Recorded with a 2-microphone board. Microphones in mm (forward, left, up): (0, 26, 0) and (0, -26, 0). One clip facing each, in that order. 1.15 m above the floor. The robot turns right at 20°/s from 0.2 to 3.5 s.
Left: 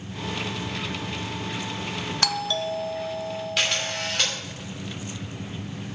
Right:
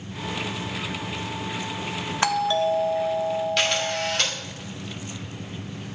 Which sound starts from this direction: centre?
A camera shutter, at 3.6 s.